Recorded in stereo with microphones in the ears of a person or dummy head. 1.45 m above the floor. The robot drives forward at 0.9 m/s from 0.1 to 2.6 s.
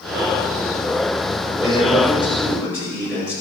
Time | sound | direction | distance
1.6 | a man speaking | 5° right (ahead or behind) | 5.5 m